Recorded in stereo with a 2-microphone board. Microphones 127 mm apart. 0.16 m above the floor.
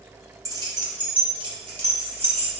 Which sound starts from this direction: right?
Keys jangling, at 0.5 s.